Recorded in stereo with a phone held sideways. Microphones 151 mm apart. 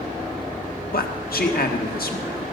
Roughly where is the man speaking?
Left.